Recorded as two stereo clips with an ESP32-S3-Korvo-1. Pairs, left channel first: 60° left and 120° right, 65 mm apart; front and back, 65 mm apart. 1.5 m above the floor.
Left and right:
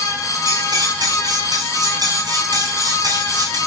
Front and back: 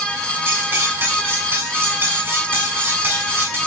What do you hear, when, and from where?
0.5 s cutlery clinking: 125° right, 8 m